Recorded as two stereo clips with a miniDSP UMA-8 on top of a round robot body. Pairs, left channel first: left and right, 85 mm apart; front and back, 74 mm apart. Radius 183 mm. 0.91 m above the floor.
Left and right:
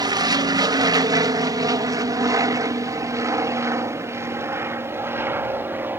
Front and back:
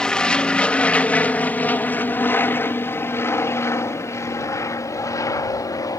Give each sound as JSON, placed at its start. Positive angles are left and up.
{"t": 0.0, "sound": "an aircraft", "azimuth_deg": -75}